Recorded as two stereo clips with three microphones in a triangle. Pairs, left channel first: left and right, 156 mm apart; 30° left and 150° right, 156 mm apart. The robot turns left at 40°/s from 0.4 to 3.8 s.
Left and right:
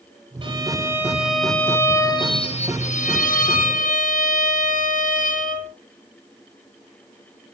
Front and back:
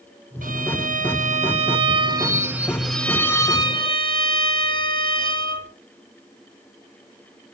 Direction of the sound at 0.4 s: 145° right.